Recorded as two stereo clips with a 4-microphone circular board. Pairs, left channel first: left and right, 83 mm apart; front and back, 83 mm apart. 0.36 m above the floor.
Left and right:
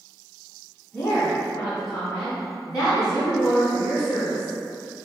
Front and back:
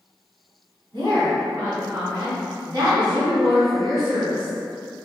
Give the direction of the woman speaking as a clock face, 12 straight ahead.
7 o'clock.